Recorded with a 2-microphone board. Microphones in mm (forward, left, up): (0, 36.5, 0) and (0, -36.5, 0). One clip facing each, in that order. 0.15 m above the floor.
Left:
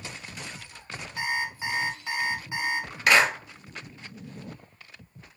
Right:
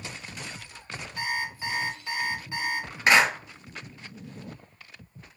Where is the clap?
25° right (ahead or behind), 1.9 m.